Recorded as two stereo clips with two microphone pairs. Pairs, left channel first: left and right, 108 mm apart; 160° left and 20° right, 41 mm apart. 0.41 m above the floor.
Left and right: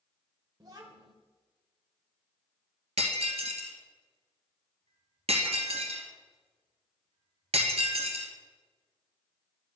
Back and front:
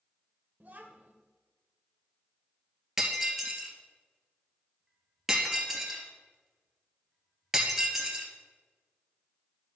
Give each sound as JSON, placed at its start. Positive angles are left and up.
{"t": 0.6, "sound": "a child speaking", "azimuth_deg": -50, "distance_m": 0.7}
{"t": 3.0, "sound": "breaking glass", "azimuth_deg": -105, "distance_m": 1.4}